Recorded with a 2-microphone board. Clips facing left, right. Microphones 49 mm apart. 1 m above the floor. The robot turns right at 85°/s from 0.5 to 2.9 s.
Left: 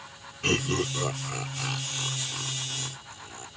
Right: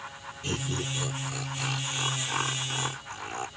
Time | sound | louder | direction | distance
0.4 | laughter | left 6 dB | 75° left (ahead or behind) | ?